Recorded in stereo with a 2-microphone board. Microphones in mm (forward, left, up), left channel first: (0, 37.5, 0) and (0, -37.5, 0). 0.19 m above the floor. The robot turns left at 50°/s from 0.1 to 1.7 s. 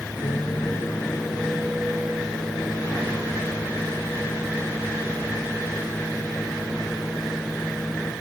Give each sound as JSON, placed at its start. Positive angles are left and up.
{"t": 0.2, "sound": "a microwave", "azimuth_deg": 70, "distance_m": 2.5}